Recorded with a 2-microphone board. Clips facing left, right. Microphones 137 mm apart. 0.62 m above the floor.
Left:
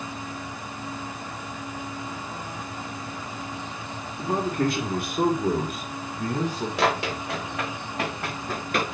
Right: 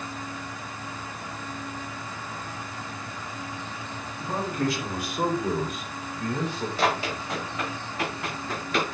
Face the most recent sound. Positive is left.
turn(degrees=50)  # may be behind; listen again after turning